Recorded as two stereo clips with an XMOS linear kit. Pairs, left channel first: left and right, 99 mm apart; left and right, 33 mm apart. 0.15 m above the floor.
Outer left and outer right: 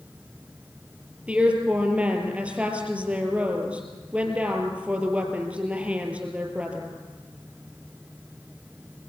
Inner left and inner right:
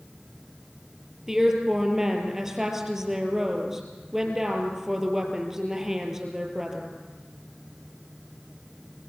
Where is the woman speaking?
10° right (ahead or behind), 4 m.